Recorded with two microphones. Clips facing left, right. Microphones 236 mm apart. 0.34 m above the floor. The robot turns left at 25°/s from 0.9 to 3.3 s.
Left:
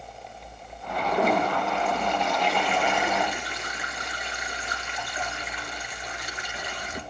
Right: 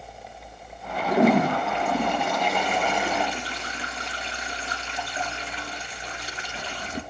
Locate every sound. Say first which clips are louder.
1.1 s a toilet flushing: right 6 dB; 95° right, 2 m; by 7.0 s 150° right, 2 m